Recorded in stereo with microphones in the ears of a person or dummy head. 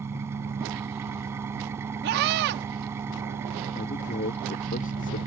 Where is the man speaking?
45° left (ahead or behind).